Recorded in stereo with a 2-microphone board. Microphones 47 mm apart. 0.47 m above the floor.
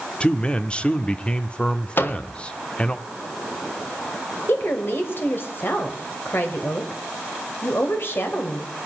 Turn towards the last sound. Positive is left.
turn(degrees=55)  # may be behind; listen again after turning